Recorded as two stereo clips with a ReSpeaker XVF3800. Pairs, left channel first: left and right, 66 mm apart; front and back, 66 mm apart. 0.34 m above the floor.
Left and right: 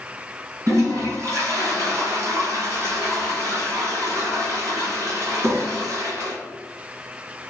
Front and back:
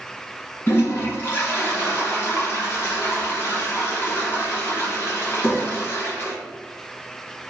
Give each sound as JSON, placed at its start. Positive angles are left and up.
{"t": 0.7, "sound": "a toilet flushing", "azimuth_deg": -50, "distance_m": 1.1}